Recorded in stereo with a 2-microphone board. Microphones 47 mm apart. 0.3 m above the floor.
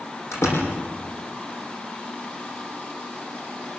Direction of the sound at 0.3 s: 80° left.